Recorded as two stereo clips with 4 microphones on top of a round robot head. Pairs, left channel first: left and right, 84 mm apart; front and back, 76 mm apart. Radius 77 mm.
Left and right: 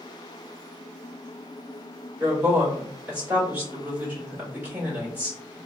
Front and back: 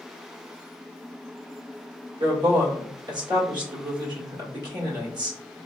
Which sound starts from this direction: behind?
A woman speaking, at 2.2 s.